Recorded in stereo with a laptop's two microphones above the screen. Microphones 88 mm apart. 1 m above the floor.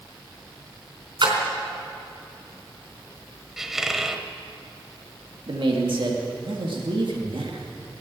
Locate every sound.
1.2 s a splash: 55° right (ahead or behind), 4 m
3.6 s a squeak: 5° right (ahead or behind), 1.0 m
5.5 s a man speaking: 65° right (ahead or behind), 2 m